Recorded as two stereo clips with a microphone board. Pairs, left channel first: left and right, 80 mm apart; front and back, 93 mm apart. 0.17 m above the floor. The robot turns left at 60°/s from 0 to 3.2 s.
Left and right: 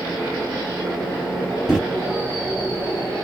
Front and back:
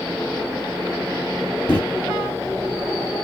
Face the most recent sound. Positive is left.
turn(degrees=-100)